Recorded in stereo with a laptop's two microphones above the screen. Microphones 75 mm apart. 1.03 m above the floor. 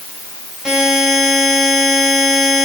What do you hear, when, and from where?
0.7 s a buzzer: 10° right (ahead or behind), 5.5 m